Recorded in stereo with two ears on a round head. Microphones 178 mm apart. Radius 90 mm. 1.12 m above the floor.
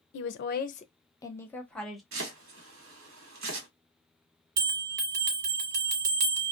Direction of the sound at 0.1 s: 70° left (ahead or behind).